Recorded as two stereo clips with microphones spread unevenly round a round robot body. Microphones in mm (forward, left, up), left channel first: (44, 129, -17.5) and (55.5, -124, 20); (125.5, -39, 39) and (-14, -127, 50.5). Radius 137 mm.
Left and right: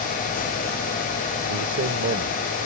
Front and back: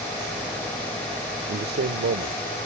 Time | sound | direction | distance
1.5 | a man speaking | 125° right | ?